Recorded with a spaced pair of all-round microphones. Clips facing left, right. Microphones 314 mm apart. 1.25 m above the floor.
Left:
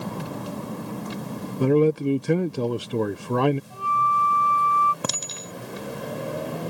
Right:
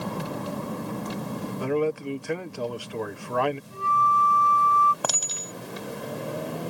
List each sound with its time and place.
1.6 s a man speaking: 45° left (ahead or behind)
3.7 s a flute: 25° right (ahead or behind)
5.0 s a clink: 30° left (ahead or behind)